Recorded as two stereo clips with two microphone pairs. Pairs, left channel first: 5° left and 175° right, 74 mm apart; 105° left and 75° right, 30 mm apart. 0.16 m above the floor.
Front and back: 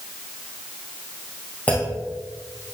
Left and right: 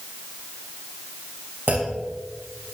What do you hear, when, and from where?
1.7 s a clunk: 65° right, 5 m